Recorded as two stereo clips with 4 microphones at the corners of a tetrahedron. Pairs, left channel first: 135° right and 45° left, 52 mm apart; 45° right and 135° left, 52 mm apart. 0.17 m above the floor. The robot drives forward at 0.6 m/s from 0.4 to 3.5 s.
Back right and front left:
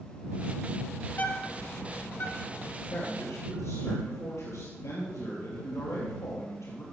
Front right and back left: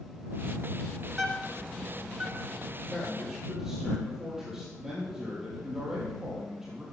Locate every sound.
1.1 s a bird: 130° right, 1.1 m; by 2.8 s 160° right, 1.8 m
2.9 s a man speaking: 140° right, 4 m; by 6.8 s 145° right, 4 m